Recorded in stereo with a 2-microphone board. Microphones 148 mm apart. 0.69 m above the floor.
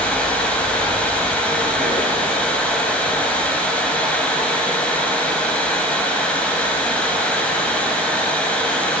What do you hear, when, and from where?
0.0 s running water: 10° left (ahead or behind), 2.5 m